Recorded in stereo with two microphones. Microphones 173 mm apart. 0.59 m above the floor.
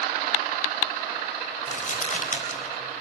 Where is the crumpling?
50° left (ahead or behind), 3.5 m.